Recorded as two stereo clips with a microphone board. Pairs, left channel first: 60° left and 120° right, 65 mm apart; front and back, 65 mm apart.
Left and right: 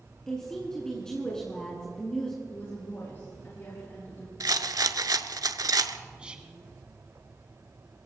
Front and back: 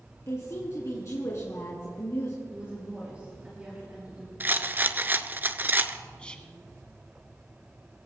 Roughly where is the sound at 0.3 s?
Ahead.